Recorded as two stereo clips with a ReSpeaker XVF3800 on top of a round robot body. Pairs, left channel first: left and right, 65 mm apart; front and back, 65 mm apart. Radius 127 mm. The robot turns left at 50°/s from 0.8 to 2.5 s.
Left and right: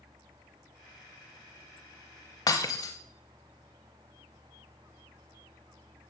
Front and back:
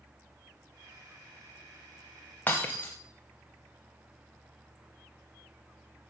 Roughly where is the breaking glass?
Left.